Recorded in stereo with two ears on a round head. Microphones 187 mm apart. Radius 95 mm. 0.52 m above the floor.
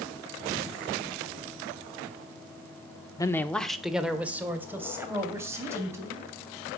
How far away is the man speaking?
About 0.8 m.